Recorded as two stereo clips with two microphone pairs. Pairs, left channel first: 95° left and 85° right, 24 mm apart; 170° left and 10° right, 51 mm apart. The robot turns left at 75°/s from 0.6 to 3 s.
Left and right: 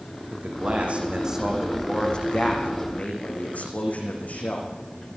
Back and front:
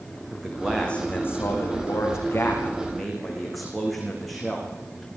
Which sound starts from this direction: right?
A man speaking, at 0.3 s.